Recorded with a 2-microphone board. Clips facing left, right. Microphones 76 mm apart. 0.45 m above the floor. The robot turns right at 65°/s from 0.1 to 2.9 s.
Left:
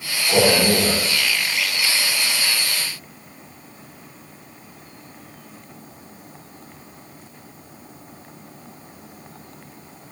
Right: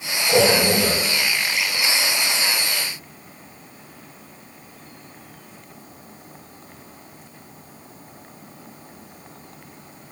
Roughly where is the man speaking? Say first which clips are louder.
Even; behind right.